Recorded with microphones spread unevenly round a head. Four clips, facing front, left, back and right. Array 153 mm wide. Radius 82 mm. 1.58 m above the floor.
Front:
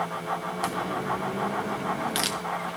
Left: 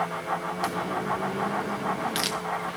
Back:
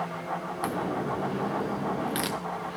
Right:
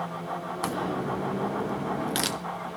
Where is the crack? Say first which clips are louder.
Right 1 dB, back 1 dB; 135° right, 0.6 m.